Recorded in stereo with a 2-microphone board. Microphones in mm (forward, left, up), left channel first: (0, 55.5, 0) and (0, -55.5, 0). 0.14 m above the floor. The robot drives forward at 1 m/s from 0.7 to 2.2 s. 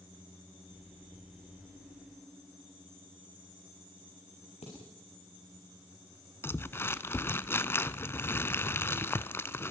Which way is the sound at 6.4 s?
25° left (ahead or behind).